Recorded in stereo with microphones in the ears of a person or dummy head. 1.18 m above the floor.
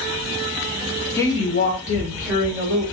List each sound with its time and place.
1.2 s a woman speaking: 15° left (ahead or behind), 0.7 m; by 2.8 s 55° left (ahead or behind), 2.5 m